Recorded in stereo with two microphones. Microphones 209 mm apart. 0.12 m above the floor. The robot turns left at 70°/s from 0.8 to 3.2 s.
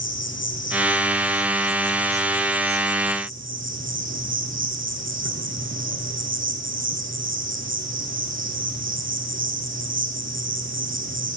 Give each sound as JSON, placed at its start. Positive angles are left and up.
{"t": 0.0, "sound": "an insect", "azimuth_deg": 80, "distance_m": 3.5}